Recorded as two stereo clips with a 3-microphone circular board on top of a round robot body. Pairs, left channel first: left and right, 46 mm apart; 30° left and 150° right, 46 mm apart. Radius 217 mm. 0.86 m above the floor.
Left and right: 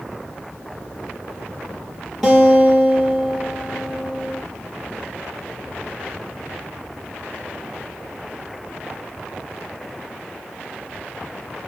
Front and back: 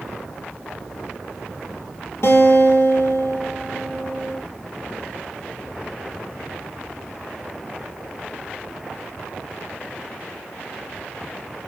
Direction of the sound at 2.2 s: 5° left.